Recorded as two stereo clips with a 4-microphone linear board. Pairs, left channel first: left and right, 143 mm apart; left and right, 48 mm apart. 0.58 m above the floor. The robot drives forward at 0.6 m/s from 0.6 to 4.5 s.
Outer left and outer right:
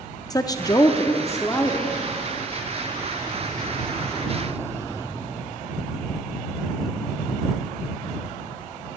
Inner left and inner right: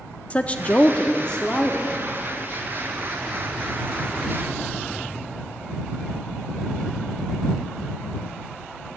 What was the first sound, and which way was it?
A woman speaking, 25° left (ahead or behind).